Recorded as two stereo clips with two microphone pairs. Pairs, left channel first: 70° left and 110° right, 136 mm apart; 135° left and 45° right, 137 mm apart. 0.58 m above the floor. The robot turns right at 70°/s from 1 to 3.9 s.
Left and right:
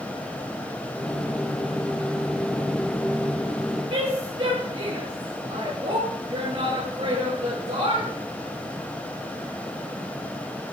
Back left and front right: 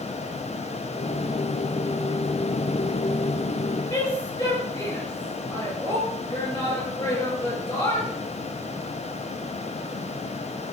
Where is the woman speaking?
150° right, 7.5 m.